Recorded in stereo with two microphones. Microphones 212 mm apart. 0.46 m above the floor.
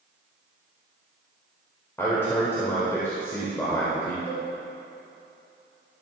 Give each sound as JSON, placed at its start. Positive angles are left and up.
{"t": 2.0, "sound": "a man speaking", "side_deg": 10, "distance_m": 1.8}
{"t": 4.3, "sound": "a cowbell", "side_deg": 55, "distance_m": 2.5}